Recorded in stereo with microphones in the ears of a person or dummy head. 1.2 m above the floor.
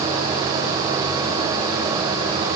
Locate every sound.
Only background noise.